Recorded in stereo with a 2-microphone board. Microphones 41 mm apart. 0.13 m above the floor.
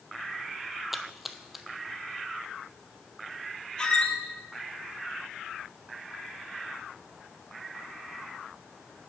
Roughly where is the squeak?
Left.